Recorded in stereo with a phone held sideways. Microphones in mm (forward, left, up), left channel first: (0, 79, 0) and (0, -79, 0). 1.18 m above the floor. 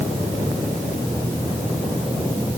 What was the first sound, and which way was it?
Only background noise.